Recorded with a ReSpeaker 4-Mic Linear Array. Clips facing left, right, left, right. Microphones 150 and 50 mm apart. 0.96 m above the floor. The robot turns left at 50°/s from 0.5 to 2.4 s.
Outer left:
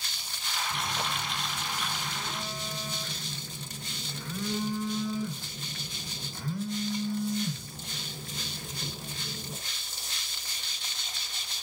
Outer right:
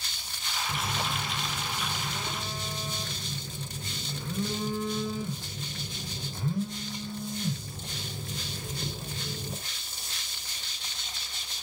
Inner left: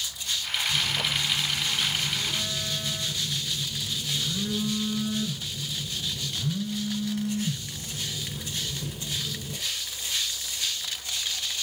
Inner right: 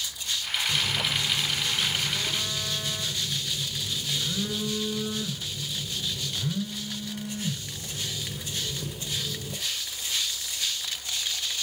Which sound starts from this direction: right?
A phone buzzing, at 0.7 s.